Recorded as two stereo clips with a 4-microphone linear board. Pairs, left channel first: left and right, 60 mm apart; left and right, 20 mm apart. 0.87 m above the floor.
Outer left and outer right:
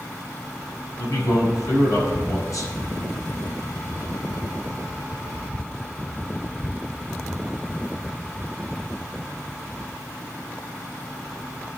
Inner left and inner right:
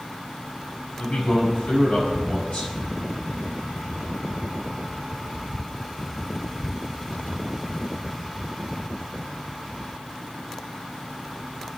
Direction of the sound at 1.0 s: 75° left (ahead or behind).